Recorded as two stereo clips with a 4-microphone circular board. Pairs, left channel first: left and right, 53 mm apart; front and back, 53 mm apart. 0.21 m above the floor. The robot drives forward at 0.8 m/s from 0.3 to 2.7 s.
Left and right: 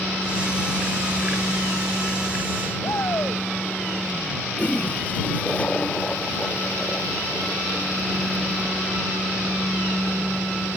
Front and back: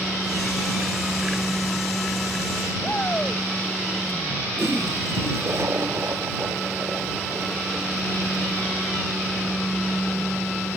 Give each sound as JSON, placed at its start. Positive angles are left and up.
{"t": 2.8, "sound": "a shout", "azimuth_deg": 65}
{"t": 4.6, "sound": "a toilet flushing", "azimuth_deg": 155}